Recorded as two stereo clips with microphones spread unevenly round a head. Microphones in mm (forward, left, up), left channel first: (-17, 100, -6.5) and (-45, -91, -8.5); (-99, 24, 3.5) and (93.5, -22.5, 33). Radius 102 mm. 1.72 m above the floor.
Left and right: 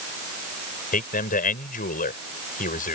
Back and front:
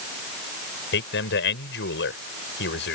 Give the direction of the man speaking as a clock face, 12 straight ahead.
8 o'clock.